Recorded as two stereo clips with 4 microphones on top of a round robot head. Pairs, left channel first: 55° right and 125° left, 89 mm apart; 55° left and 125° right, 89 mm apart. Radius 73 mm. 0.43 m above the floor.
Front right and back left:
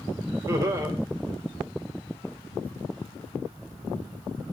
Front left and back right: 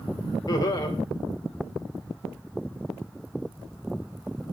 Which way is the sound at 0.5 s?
80° left.